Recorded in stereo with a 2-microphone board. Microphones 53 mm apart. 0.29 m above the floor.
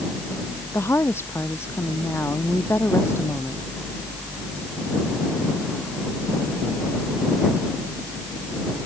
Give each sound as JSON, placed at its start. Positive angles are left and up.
{"t": 0.7, "sound": "a woman speaking", "side_deg": 50}